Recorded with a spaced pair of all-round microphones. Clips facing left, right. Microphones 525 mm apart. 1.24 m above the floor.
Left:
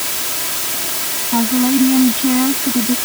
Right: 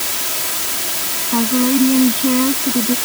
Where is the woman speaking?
10° left (ahead or behind).